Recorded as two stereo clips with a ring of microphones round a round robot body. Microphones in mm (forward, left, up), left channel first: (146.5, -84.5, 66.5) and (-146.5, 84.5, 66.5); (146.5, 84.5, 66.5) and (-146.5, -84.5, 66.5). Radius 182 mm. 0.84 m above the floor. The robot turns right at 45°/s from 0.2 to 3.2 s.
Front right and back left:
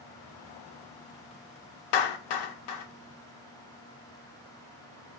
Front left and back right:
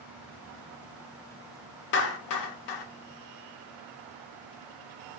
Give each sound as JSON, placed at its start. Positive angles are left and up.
{"t": 1.9, "sound": "a clap", "azimuth_deg": -30, "distance_m": 0.7}